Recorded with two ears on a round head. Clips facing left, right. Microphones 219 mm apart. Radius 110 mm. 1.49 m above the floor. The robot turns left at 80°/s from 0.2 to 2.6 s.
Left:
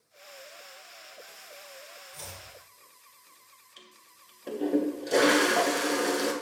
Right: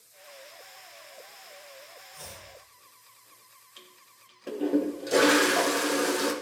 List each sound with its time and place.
2.1 s chopping: 55° left (ahead or behind), 2 m; by 2.5 s 35° left (ahead or behind), 2 m
3.8 s a toilet flushing: 5° right (ahead or behind), 0.9 m